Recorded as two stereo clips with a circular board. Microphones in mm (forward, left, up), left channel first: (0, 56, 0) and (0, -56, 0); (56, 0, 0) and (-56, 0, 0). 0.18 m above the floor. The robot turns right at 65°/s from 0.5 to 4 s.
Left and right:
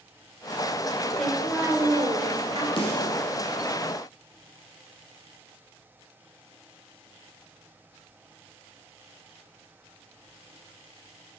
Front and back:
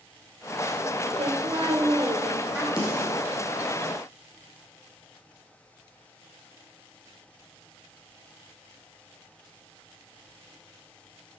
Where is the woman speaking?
175° left, 2 m; by 2.7 s 85° right, 2 m.